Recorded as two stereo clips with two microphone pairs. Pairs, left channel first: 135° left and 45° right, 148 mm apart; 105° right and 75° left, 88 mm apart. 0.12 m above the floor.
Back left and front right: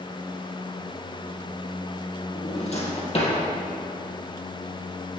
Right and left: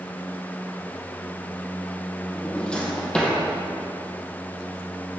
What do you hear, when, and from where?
2.4 s a drawer: 175° left, 2.5 m